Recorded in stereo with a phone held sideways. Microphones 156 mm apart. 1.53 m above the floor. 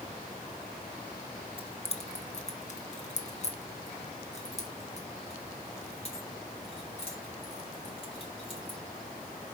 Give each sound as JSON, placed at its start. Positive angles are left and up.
{"t": 1.6, "sound": "keys jangling", "side_deg": 35, "distance_m": 0.8}